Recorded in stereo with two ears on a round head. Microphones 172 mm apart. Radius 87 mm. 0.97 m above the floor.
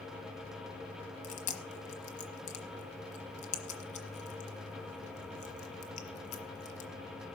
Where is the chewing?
40° left (ahead or behind), 1.6 m.